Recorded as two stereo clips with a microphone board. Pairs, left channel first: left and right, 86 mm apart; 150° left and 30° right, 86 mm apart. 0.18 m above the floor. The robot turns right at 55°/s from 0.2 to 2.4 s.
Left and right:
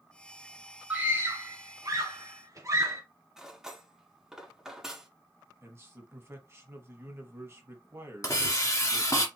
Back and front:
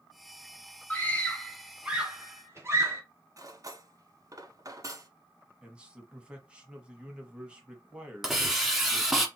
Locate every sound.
0.9 s a scream: 155° right, 1.8 m; by 3.0 s 70° right, 1.8 m
3.4 s cutlery clinking: 10° right, 1.0 m
5.6 s a man speaking: 95° right, 1.3 m
8.2 s a hiss: 55° left, 1.2 m